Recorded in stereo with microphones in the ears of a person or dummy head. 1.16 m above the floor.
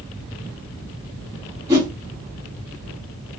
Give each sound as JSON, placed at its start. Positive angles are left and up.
{"t": 1.7, "sound": "a whoosh", "side_deg": -25, "distance_m": 0.8}